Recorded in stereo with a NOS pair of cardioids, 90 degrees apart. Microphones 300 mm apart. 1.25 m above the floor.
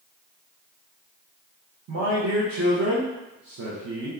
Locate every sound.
1.9 s a man speaking: 50° right, 1.0 m